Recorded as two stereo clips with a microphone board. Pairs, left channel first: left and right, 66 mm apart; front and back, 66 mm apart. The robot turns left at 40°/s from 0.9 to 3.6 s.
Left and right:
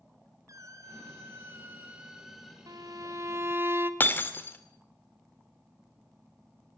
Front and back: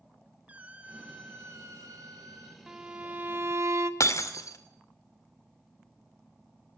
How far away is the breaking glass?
About 2 m.